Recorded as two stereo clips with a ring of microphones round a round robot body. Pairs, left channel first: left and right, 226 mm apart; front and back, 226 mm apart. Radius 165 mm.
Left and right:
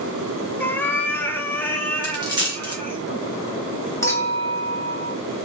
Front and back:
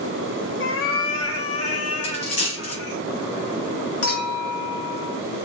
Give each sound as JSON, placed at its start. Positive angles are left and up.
{"t": 0.6, "sound": "a cat meowing", "azimuth_deg": 10, "distance_m": 0.7}
{"t": 2.0, "sound": "a dropped coin", "azimuth_deg": -20, "distance_m": 2.0}
{"t": 4.0, "sound": "a clink", "azimuth_deg": 10, "distance_m": 1.8}